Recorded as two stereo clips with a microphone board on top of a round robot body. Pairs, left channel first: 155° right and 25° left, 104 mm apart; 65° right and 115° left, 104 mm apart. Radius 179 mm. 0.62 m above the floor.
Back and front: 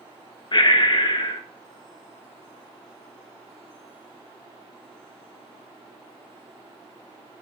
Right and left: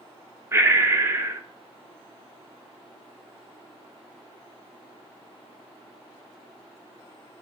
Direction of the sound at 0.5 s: 175° left.